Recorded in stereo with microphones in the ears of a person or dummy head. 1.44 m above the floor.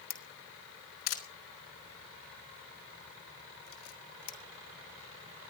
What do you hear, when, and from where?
0.1 s a camera shutter: 80° left, 3 m